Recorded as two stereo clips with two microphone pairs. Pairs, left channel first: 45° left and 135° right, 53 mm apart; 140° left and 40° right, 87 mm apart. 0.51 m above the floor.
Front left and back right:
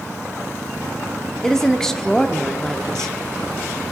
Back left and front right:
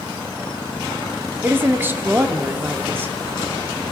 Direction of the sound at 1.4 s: 25° right.